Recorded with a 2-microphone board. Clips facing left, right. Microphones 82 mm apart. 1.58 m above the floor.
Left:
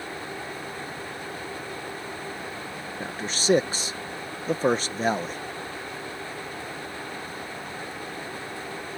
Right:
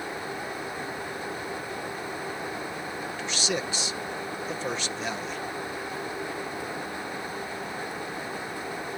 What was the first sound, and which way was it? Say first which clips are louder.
A man speaking: left 7 dB; 45° left (ahead or behind).